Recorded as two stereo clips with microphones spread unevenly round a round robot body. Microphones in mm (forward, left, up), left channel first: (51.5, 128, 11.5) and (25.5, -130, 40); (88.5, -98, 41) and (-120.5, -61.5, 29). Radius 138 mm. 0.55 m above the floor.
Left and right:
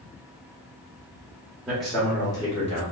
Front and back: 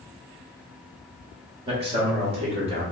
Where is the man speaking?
175° left, 1.1 m; by 2.8 s 125° left, 1.3 m.